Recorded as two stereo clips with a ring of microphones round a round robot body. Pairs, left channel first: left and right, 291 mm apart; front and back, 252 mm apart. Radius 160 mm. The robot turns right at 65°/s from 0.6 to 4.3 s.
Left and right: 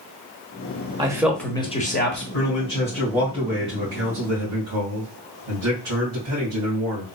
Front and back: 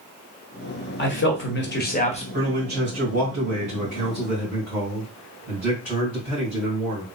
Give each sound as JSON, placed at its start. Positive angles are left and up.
{"t": 1.0, "sound": "a man speaking", "azimuth_deg": -20, "distance_m": 1.4}
{"t": 2.3, "sound": "a man speaking", "azimuth_deg": 135, "distance_m": 2.5}